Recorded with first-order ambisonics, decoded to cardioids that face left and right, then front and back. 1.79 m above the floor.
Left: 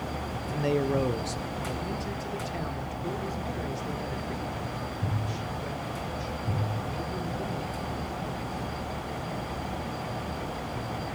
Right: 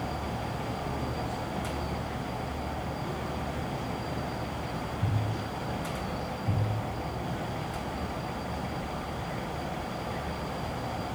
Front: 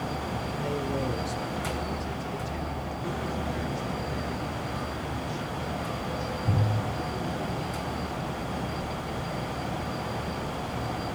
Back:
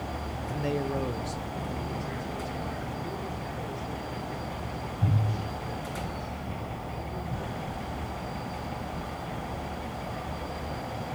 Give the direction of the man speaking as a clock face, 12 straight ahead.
8 o'clock.